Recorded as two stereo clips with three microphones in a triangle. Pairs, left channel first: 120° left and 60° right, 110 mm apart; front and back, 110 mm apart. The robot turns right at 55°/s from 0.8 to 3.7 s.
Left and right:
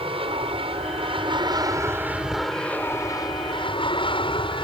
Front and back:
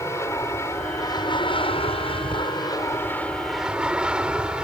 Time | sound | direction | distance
0.0 | an aircraft | 60° right | ?